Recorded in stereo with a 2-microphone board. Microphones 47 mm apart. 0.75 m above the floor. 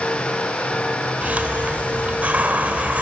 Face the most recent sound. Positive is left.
turn(degrees=-35)  # may be behind; listen again after turning